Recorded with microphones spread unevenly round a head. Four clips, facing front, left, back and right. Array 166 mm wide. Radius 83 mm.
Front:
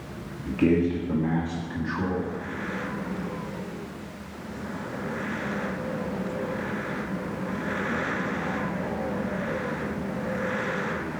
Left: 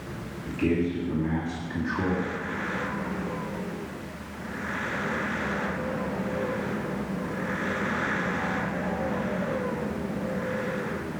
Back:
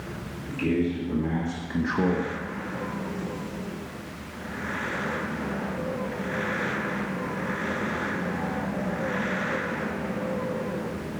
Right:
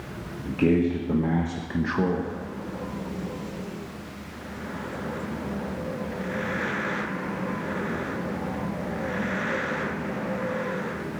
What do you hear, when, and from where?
0.5 s a man speaking: 50° right, 2 m; by 2.3 s 145° right, 1.6 m